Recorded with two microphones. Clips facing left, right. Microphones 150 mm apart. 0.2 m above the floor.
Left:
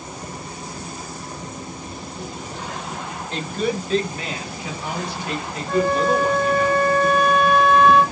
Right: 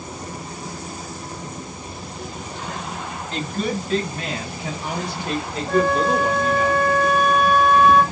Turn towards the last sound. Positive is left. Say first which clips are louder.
# even
turn(degrees=-10)  # may be behind; listen again after turning